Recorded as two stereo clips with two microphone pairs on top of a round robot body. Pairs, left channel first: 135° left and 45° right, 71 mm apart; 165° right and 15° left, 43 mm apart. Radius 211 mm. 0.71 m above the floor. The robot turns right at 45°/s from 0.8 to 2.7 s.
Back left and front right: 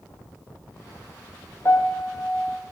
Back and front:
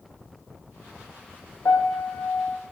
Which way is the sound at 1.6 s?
170° right.